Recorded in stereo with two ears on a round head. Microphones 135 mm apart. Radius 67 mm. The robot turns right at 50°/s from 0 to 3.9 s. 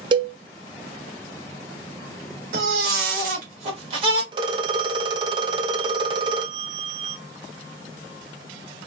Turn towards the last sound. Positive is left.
turn(degrees=-30)  # may be behind; listen again after turning